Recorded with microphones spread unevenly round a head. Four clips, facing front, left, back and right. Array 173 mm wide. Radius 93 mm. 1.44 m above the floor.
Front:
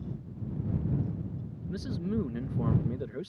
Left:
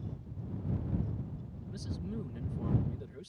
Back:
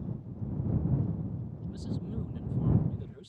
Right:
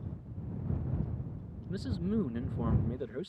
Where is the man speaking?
35° right.